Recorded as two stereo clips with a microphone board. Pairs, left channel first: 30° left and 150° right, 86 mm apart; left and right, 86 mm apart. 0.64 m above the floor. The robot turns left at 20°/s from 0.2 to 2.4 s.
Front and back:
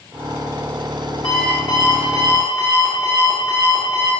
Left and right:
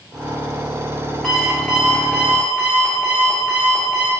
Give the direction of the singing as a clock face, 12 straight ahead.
No singing in this recording.